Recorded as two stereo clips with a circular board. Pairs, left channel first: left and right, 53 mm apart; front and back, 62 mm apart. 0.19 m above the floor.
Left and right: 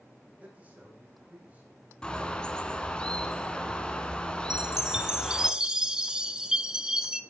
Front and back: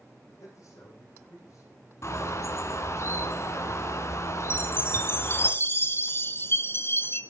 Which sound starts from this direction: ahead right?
A man speaking, at 0.4 s.